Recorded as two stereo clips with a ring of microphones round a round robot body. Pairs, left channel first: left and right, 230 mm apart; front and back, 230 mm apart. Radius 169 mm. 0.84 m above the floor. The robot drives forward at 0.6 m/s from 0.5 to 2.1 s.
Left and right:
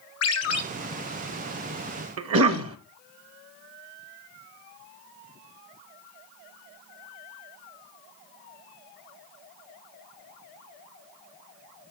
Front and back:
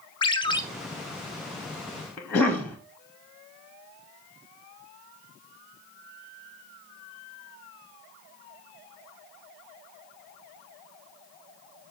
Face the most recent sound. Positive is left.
turn(degrees=-85)